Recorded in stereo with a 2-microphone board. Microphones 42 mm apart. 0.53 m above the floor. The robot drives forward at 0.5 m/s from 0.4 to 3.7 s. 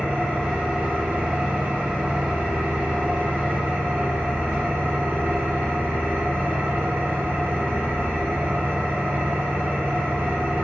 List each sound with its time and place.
0.0 s an engine running: 60° right (ahead or behind), 1.9 m; by 10.7 s 65° right (ahead or behind), 1.8 m